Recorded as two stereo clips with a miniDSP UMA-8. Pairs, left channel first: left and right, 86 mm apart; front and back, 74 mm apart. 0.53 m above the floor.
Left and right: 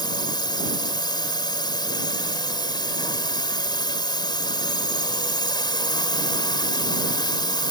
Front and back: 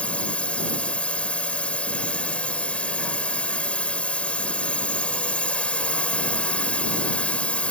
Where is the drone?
70° left.